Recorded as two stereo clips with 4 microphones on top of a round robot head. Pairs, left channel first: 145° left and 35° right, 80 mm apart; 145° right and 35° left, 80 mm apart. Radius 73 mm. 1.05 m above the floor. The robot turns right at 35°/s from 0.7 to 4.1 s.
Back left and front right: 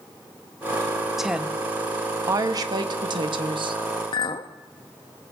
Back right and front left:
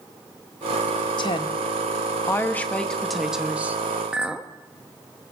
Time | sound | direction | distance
1.2 | a woman speaking | 125° right | 1.4 m
4.1 | a clink | 115° left | 0.9 m